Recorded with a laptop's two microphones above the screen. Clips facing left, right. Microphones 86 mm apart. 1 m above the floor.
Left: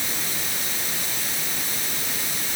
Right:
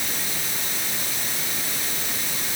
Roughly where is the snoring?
No snoring in this recording.